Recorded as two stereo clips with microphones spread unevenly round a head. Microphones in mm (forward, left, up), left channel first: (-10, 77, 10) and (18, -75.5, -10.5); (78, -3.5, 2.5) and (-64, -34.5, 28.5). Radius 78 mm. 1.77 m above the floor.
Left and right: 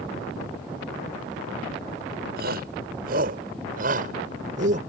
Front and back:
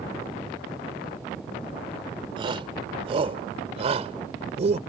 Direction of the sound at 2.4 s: 115° right.